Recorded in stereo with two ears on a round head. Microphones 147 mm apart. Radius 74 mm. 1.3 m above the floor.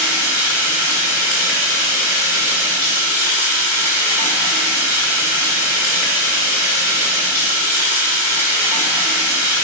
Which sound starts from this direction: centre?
Running water, at 0.0 s.